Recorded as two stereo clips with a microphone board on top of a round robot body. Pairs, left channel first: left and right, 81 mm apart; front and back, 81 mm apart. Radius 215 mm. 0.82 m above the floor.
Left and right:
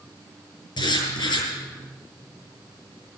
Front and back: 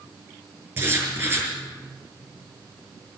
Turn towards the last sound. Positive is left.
turn(degrees=115)